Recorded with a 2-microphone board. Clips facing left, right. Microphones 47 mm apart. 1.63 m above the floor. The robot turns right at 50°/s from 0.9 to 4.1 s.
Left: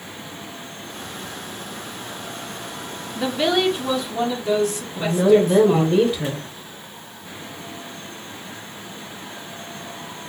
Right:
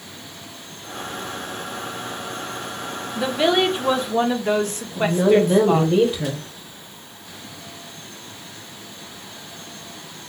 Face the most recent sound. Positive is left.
turn(degrees=-5)  # may be behind; listen again after turning